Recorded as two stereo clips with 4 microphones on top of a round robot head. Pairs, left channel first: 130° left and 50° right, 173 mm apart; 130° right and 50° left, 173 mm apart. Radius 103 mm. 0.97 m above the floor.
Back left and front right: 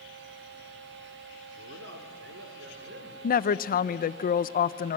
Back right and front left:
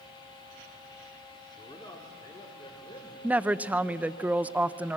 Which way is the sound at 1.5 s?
65° right.